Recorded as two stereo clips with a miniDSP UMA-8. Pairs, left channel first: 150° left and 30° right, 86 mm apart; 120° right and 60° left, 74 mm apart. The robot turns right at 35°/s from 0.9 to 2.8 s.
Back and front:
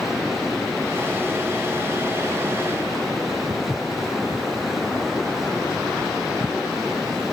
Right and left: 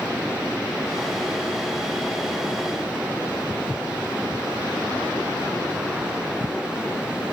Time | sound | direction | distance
3.5 | footsteps | 85° right | 0.6 m